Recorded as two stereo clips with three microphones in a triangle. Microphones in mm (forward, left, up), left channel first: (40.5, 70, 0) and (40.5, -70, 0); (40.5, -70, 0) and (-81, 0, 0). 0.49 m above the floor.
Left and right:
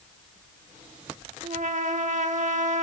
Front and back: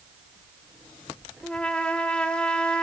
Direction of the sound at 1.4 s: 110° right.